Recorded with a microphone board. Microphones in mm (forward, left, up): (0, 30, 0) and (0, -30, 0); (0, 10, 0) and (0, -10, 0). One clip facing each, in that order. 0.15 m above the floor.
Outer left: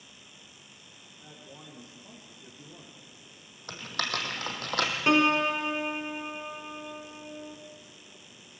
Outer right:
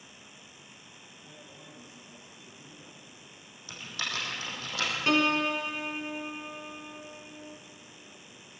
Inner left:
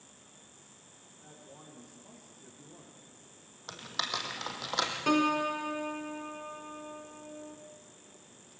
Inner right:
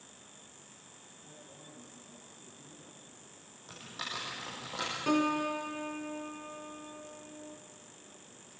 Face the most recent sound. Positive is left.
turn(degrees=25)  # may be behind; listen again after turning